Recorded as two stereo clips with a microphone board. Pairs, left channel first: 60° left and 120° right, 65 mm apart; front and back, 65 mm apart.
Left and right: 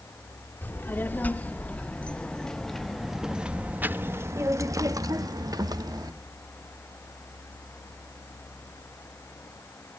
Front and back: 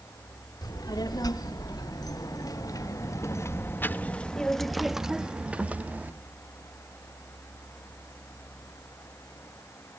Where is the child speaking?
Straight ahead, 2.0 m; by 6.1 s 115° right, 1.4 m.